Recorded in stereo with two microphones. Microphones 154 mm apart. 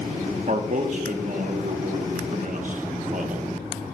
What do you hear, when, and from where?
0.5 s a man speaking: 55° right (ahead or behind), 1.0 m